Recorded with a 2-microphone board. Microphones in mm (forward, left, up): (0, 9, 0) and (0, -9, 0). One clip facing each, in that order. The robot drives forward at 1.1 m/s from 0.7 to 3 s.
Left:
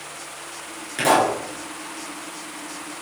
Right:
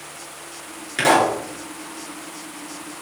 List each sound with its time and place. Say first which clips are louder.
1.0 s a pop: right 2 dB; 15° right (ahead or behind), 3.5 m; by 1.4 s 20° right (ahead or behind), 3 m